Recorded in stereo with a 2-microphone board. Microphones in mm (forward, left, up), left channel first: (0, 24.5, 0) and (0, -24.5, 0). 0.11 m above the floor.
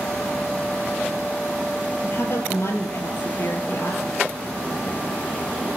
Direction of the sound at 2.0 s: 60° left (ahead or behind).